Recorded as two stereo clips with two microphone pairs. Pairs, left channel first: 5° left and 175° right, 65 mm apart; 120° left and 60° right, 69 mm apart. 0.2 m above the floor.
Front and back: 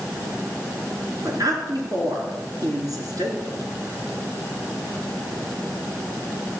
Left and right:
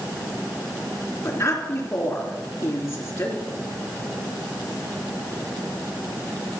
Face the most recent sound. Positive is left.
turn(degrees=165)